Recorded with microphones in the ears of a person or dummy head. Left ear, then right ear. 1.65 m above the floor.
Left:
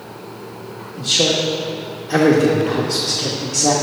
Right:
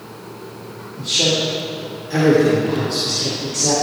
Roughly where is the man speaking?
Left.